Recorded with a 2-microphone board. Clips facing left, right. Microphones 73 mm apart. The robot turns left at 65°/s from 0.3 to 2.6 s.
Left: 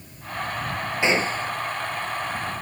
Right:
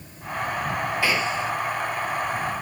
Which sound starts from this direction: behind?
A gunshot, at 1.0 s.